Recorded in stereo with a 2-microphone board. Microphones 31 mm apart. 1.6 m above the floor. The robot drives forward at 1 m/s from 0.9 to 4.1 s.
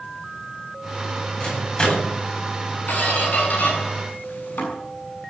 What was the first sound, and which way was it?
A microwave, 30° left (ahead or behind).